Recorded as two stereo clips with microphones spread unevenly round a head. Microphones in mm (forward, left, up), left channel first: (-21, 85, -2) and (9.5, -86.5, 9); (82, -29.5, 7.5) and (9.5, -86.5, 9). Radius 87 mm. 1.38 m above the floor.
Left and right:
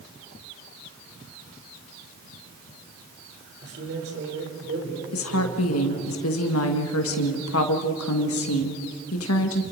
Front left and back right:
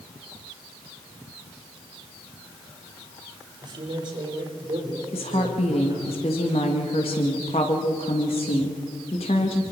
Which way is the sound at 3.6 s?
105° right.